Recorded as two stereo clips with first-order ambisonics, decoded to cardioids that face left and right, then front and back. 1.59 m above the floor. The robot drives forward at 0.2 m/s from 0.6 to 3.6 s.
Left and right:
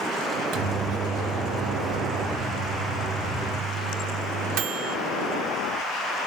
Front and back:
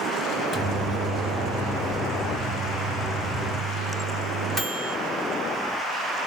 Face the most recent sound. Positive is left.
turn(degrees=-105)